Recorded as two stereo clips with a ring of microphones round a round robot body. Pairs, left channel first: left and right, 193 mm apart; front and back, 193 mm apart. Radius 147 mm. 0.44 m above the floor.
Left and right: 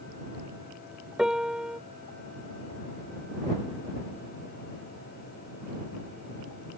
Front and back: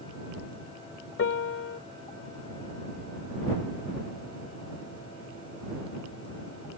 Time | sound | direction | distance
1.2 | a piano | 5° right | ?